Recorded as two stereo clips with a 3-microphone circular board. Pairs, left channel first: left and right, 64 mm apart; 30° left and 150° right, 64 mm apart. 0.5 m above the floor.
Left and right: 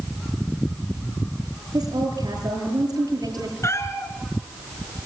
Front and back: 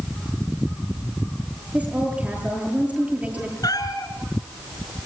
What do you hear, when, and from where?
1.7 s a woman speaking: 80° right, 9 m
3.6 s a cat meowing: 45° left, 2.5 m